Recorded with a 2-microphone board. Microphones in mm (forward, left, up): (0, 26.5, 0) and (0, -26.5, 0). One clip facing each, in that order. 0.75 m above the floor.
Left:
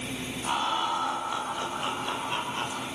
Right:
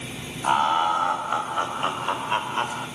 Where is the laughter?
40° right (ahead or behind), 4.5 m; by 2.9 s 35° right (ahead or behind), 2.5 m.